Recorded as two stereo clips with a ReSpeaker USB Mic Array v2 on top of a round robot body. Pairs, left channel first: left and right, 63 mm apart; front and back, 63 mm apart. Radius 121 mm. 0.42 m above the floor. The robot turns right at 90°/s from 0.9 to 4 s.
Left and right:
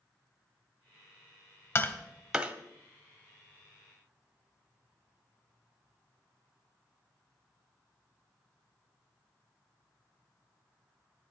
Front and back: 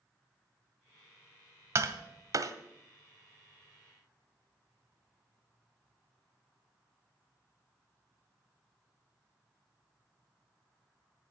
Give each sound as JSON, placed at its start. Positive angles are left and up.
{"t": 1.8, "sound": "tapping", "azimuth_deg": 135, "distance_m": 1.0}